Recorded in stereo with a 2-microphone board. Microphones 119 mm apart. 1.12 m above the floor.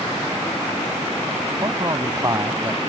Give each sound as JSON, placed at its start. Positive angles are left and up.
{"t": 1.6, "sound": "a man speaking", "side_deg": -35}